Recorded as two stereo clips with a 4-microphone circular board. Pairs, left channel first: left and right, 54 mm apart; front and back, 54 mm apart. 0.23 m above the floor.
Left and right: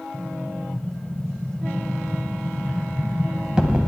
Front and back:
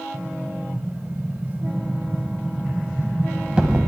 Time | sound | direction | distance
0.1 | an explosion | 135° right | 0.9 m